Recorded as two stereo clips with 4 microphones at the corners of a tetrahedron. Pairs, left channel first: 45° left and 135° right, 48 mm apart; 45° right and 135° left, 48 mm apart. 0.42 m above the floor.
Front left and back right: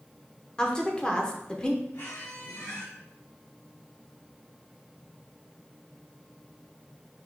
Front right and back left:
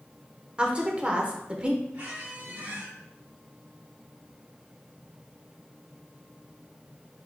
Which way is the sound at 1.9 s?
80° left.